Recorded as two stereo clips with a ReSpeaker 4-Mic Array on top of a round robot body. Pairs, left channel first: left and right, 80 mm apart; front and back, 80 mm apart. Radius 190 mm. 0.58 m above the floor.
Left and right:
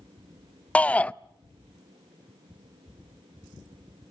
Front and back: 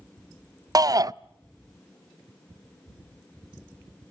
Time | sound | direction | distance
0.8 | a shout | 160° left | 0.9 m